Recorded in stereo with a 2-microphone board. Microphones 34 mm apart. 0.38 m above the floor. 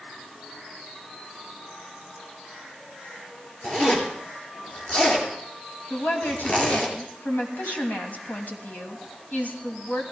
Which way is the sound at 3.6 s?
35° left (ahead or behind).